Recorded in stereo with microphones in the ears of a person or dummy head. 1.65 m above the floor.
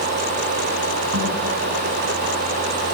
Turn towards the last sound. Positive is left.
turn(degrees=-70)  # may be behind; listen again after turning